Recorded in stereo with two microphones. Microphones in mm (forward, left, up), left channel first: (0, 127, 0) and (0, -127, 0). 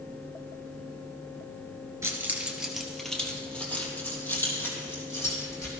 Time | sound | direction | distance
2.0 | keys jangling | 10° right (ahead or behind) | 2.0 m